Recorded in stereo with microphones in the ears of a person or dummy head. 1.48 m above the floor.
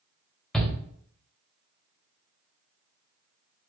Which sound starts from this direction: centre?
A shout, at 0.5 s.